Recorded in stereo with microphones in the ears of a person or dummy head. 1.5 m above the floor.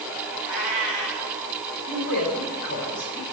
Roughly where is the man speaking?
Left.